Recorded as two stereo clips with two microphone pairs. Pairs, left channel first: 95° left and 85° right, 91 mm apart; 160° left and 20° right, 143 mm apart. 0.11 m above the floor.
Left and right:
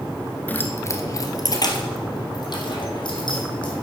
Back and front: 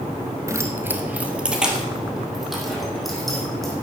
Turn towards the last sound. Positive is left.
turn(degrees=70)